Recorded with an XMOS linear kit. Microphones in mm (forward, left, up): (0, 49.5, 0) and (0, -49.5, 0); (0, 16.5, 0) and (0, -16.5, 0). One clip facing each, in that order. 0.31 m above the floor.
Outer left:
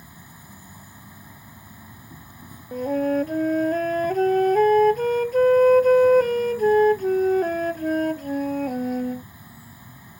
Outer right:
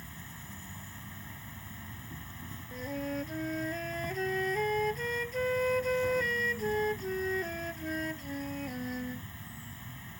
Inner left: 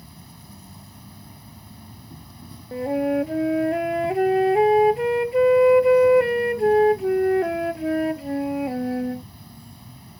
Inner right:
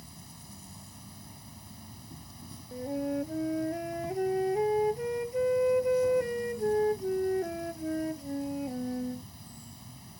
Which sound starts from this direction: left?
A flute, at 2.7 s.